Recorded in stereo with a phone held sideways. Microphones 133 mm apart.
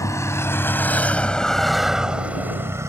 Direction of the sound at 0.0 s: 25° left (ahead or behind).